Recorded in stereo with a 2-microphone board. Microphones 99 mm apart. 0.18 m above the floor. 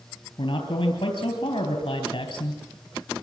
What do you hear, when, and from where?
0.4 s a man speaking: 50° left (ahead or behind), 3.5 m